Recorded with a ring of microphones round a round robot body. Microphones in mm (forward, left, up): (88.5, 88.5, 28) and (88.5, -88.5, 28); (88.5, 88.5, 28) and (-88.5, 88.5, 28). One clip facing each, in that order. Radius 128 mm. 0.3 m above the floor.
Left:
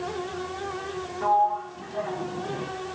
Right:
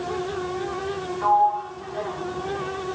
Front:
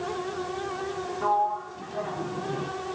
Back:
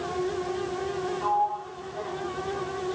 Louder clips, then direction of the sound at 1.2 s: Right 2 dB, front 1 dB; 35° left.